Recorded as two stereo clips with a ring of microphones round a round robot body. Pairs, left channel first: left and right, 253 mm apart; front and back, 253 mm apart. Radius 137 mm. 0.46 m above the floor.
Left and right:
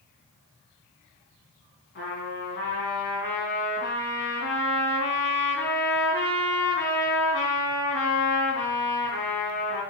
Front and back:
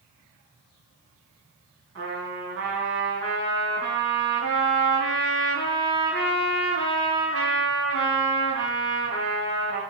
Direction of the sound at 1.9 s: 145° left.